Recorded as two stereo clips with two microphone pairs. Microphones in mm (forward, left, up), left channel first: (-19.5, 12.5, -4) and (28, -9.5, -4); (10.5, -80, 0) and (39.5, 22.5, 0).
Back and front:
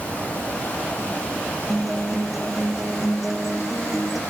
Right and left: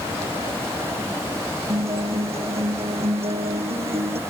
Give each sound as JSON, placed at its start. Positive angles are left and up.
{"t": 1.7, "sound": "a guitar", "azimuth_deg": 60}